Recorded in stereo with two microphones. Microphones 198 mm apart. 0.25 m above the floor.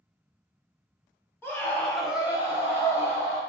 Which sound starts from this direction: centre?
A scream, at 1.4 s.